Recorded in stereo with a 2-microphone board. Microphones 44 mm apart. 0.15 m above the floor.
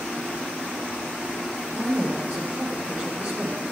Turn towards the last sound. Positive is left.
turn(degrees=-15)  # may be behind; listen again after turning